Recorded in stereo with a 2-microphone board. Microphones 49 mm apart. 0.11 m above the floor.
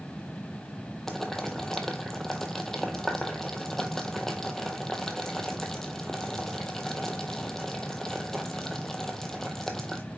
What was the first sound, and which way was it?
Boiling, 5° left (ahead or behind).